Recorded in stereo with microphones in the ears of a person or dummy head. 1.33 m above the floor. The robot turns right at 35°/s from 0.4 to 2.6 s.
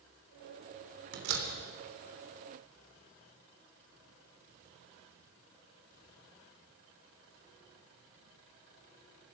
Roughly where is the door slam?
Right.